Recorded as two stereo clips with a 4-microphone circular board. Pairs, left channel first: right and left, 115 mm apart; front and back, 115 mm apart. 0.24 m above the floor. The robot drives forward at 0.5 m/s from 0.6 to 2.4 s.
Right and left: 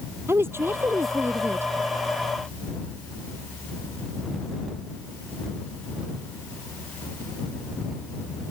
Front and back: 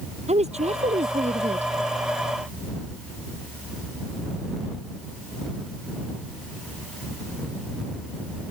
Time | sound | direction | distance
0.3 | a woman speaking | 160° left | ?